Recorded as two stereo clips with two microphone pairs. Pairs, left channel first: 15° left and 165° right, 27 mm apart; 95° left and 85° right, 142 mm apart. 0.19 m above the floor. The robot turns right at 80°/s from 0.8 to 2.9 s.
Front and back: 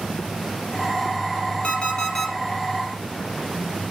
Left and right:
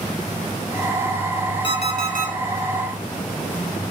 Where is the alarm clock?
40° left, 1.7 m; by 2.3 s 95° left, 1.7 m.